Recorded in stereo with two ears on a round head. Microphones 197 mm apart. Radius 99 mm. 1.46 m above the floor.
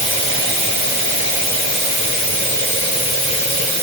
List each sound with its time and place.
0.0 s running water: 30° left (ahead or behind), 3.5 m